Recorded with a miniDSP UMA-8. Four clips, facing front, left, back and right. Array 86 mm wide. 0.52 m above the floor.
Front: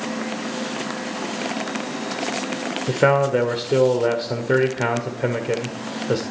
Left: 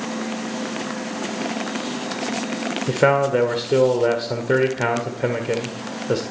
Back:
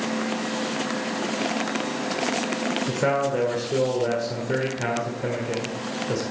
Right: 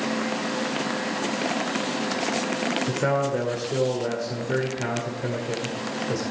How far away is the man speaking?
About 1.8 m.